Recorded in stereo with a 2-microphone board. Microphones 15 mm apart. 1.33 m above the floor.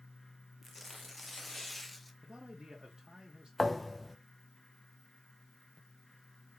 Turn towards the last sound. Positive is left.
turn(degrees=5)  # may be behind; listen again after turning